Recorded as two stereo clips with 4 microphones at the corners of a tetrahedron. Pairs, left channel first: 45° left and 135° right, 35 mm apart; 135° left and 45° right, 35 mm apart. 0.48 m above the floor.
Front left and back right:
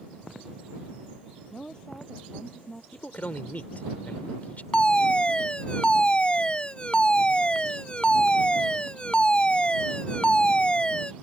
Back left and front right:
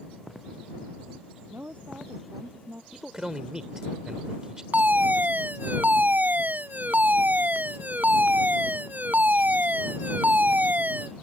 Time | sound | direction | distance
1.5 | a woman speaking | 20° right | ?
2.9 | a man speaking | 25° left | ?
4.7 | a fire alarm | 15° right | ?